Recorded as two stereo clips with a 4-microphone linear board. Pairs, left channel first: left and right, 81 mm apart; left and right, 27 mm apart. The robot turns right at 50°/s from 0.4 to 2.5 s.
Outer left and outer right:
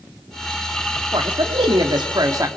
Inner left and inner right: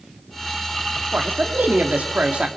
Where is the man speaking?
110° right, 2.5 m; by 2.5 s 40° right, 2.5 m.